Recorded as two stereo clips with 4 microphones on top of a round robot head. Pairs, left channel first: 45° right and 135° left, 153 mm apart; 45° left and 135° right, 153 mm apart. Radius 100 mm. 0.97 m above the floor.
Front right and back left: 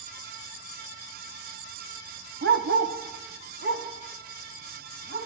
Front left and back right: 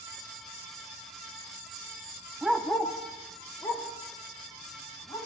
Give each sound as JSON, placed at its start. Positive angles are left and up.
{"t": 2.4, "sound": "a dog barking", "azimuth_deg": 140, "distance_m": 0.6}